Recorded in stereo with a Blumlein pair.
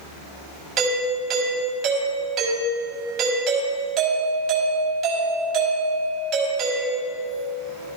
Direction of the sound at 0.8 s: 25° right.